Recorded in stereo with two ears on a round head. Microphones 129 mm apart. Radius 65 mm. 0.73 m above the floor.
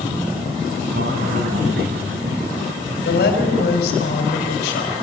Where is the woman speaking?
80° left, 3.5 m.